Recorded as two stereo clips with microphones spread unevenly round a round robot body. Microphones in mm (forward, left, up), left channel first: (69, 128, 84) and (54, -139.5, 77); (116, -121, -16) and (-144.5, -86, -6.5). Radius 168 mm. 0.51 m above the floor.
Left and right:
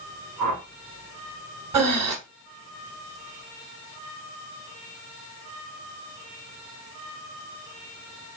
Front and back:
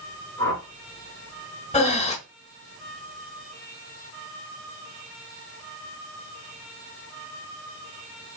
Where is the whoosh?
90° right, 2 m.